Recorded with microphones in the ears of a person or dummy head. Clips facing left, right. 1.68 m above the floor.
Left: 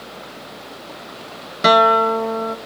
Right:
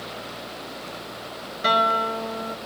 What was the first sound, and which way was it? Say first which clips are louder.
A guitar: left 10 dB; 70° left (ahead or behind).